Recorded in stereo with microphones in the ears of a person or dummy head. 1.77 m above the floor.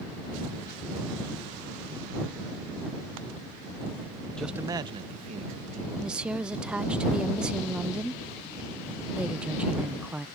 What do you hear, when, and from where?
4.4 s a man speaking: centre (ahead or behind); by 5.9 s 45° right (ahead or behind)
6.0 s a woman speaking: 5° right (ahead or behind)